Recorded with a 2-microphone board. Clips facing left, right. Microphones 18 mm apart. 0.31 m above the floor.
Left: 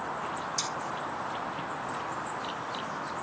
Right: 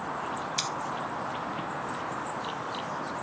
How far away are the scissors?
About 0.6 m.